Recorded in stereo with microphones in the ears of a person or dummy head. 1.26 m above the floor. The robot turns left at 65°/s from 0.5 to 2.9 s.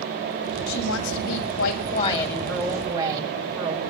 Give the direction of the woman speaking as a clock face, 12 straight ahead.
8 o'clock.